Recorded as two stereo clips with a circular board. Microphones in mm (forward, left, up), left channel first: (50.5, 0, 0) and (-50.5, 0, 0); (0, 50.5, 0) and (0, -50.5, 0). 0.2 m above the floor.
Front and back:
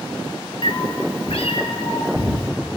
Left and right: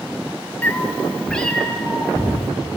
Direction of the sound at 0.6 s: 20° left.